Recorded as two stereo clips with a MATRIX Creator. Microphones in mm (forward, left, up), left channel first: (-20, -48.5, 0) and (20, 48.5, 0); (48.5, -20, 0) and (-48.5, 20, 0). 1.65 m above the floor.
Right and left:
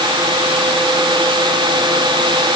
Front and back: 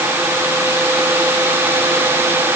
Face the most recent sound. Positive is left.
No sound to turn to.